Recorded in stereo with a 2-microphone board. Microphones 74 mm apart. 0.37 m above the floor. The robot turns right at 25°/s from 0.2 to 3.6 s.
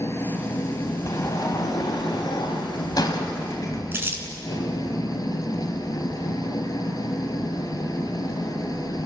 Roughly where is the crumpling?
Right.